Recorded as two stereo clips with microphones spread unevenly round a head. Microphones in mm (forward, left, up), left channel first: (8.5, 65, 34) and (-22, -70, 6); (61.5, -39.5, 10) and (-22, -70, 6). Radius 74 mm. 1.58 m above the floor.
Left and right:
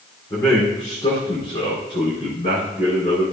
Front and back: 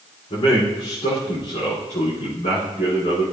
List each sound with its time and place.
0.3 s a man speaking: 5° left, 4.5 m; by 3.2 s 30° left, 4.5 m